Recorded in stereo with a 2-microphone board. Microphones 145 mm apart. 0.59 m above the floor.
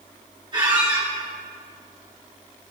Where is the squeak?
35° right (ahead or behind), 5 m.